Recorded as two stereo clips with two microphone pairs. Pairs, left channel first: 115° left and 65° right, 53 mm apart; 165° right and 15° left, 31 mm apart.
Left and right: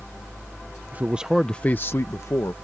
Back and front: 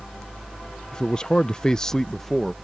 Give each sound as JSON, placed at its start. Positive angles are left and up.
{"t": 0.9, "sound": "a man speaking", "azimuth_deg": -105}